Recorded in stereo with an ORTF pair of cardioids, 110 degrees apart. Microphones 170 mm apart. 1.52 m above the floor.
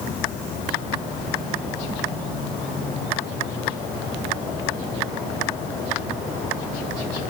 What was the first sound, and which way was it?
Only background noise.